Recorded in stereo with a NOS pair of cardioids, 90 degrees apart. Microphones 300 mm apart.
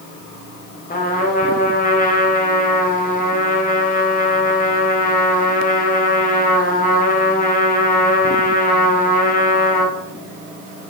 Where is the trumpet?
30° left, 2.0 m.